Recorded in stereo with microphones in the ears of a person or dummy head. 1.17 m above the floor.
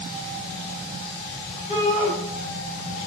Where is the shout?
35° left (ahead or behind), 6 m.